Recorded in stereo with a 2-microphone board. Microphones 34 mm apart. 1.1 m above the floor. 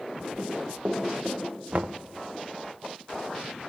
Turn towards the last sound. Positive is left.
turn(degrees=-50)  # may be behind; listen again after turning